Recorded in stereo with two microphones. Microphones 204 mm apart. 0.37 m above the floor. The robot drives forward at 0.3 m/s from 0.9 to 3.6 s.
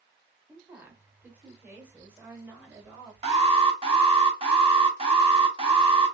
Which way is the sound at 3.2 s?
30° right (ahead or behind).